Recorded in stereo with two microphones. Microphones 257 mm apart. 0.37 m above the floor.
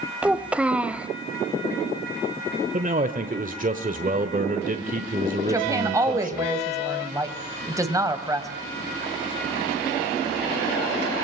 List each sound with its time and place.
0.2 s a child speaking: 5° right (ahead or behind), 0.8 m
2.7 s a man speaking: 30° right (ahead or behind), 1.3 m
5.5 s a woman speaking: 15° right (ahead or behind), 2.5 m